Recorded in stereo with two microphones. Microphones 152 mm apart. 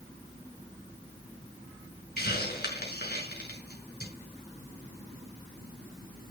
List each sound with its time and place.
2.2 s a hiss: 80° left, 5.5 m